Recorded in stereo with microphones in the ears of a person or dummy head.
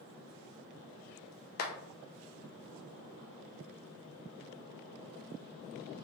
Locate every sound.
1.6 s a clap: 45° left (ahead or behind), 0.7 m